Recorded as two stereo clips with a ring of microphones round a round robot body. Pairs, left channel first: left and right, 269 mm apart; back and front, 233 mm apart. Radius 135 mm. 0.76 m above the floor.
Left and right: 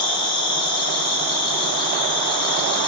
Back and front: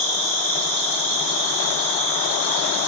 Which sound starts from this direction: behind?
An insect, at 0.0 s.